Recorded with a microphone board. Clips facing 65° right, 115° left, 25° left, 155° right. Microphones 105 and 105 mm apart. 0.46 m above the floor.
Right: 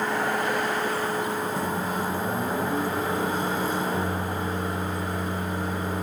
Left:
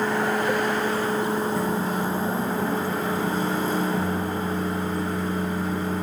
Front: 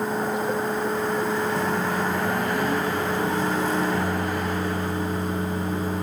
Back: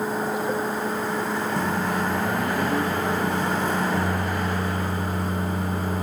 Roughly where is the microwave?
Behind right.